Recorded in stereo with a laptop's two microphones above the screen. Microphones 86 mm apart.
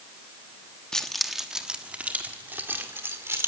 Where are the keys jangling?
10° left (ahead or behind), 0.9 m; by 3.5 s 30° right (ahead or behind), 1.9 m.